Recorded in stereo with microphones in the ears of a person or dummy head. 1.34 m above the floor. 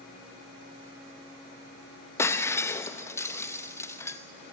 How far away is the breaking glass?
About 0.9 m.